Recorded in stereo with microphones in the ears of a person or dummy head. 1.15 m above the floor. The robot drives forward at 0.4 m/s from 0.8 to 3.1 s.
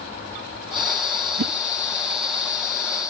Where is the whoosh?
50° right (ahead or behind), 0.6 m.